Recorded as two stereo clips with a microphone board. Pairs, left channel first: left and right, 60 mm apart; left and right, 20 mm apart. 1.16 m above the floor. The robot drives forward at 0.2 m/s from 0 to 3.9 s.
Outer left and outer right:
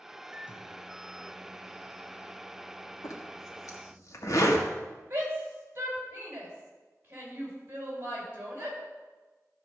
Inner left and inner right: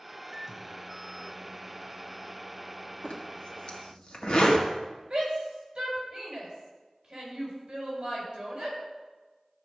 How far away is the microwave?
About 1.0 m.